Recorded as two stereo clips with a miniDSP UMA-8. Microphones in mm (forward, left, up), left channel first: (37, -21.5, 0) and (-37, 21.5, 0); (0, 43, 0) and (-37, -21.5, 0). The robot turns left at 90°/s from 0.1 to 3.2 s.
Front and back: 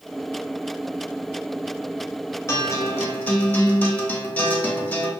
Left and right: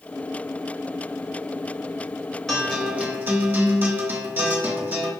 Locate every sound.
2.5 s a guitar: 15° right, 0.8 m; by 5.1 s 80° right, 0.8 m